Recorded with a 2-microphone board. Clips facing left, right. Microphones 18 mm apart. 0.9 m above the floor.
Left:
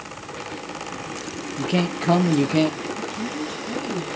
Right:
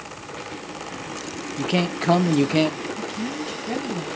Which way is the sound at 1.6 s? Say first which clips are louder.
Even; 10° right (ahead or behind).